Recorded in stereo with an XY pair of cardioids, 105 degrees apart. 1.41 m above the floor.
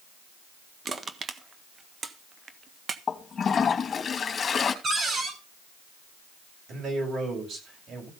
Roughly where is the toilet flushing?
Ahead left.